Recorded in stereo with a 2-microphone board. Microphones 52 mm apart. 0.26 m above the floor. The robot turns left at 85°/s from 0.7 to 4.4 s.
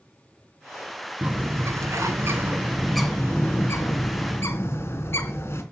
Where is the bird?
30° right, 2.5 m; by 5.6 s 55° left, 2.5 m.